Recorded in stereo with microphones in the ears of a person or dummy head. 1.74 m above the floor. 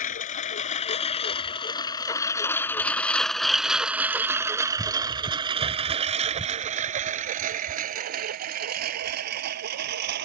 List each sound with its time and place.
0.0 s a lawn mower: 40° left (ahead or behind); by 10.2 s 55° right (ahead or behind)